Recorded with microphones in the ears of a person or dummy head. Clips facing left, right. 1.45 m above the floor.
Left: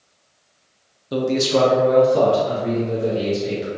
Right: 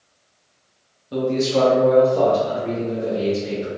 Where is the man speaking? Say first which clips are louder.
Left 1 dB; 60° left (ahead or behind), 0.6 m; by 3.7 s 70° left (ahead or behind), 2.0 m.